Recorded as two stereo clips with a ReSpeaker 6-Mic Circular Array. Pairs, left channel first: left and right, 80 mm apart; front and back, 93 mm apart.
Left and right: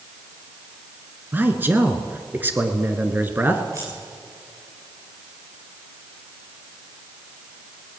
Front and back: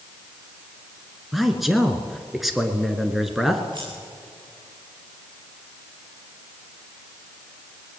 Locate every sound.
1.3 s a man speaking: 95° right, 1.8 m
3.7 s scissors: 145° right, 8 m